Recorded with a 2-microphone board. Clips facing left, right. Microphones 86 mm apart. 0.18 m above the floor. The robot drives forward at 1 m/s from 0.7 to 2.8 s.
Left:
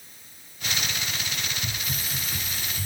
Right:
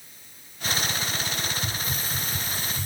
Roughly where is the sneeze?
No sneeze in this recording.